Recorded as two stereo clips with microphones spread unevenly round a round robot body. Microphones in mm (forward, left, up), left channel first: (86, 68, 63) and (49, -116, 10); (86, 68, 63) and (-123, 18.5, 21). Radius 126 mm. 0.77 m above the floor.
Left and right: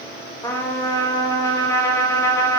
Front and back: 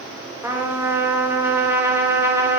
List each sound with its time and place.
0.4 s a trumpet: 170° left, 0.7 m